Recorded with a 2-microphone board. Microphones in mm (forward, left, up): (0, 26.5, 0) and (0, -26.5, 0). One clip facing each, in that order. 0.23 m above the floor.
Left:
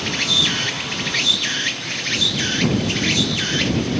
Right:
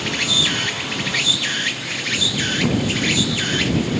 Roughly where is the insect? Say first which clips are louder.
Even; centre.